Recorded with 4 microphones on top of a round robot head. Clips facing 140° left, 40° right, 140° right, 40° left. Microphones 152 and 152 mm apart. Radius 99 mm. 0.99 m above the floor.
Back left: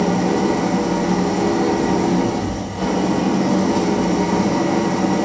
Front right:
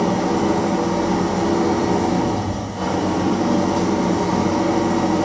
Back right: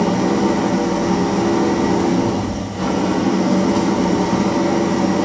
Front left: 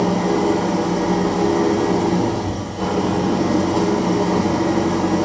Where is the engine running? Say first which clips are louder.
Back left 1 dB, back right 1 dB; 145° right, 1.8 m.